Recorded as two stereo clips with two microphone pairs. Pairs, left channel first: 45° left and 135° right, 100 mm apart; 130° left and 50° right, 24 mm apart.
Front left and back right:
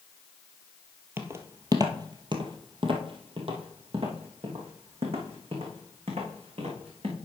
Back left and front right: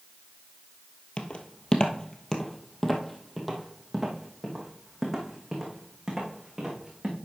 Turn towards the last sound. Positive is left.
turn(degrees=-125)